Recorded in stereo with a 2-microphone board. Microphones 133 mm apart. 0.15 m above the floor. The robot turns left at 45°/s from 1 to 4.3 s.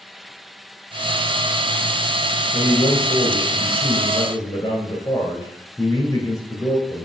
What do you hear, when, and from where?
2.5 s a man speaking: 110° left, 1.8 m; by 7.1 s 30° left, 1.8 m